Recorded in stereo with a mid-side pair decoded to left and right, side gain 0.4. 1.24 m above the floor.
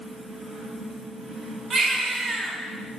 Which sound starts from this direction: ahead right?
A baby crying, at 1.7 s.